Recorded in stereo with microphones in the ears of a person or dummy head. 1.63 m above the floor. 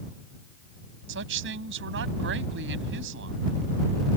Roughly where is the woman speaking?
Right.